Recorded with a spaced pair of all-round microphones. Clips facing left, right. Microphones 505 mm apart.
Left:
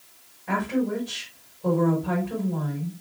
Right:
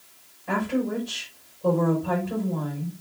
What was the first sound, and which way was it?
A woman speaking, 5° left (ahead or behind).